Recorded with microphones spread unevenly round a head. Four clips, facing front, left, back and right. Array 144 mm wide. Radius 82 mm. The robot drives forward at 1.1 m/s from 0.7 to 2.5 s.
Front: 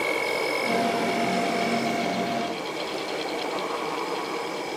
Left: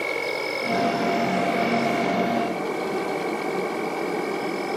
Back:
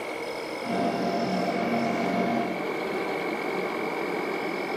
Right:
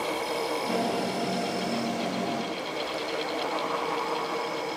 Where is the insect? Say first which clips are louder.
Left 2 dB, front 6 dB; 30° left, 1.8 m; by 4.8 s 115° left, 1.0 m.